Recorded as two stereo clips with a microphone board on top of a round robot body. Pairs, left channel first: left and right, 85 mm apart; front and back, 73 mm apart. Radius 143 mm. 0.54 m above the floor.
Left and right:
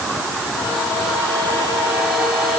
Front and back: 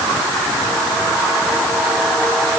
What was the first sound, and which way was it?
Only background noise.